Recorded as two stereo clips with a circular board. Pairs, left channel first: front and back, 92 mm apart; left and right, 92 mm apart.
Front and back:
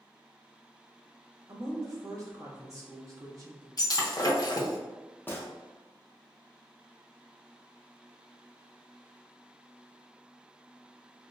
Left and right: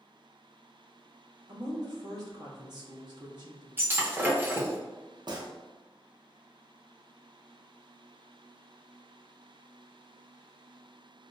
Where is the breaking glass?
30° right, 0.6 m.